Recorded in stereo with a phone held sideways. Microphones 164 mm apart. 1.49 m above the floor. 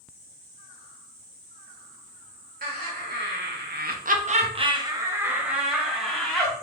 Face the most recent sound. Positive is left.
turn(degrees=5)  # may be behind; listen again after turning